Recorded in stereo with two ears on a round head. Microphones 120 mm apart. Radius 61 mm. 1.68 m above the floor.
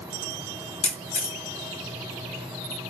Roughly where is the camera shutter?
Left.